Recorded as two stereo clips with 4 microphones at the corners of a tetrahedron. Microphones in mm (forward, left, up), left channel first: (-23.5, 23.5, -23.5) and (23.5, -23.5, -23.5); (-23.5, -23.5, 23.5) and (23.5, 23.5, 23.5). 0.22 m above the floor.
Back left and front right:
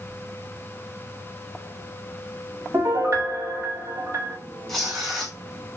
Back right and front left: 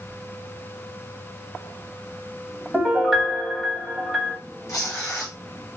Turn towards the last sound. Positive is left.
turn(degrees=-140)